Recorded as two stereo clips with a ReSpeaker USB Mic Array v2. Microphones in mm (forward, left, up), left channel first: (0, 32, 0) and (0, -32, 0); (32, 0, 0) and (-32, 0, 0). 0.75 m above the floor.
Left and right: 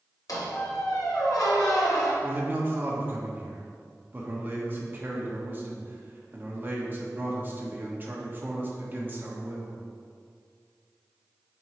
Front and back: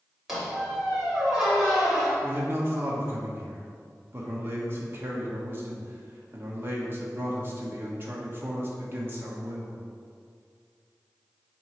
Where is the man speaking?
140° right, 1.2 m.